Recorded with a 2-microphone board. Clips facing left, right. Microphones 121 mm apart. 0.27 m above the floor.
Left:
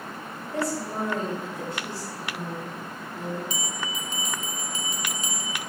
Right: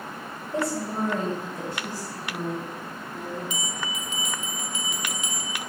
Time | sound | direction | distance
0.5 | a woman speaking | 20° right (ahead or behind) | 1.4 m
3.5 | a bell | 35° left (ahead or behind) | 0.8 m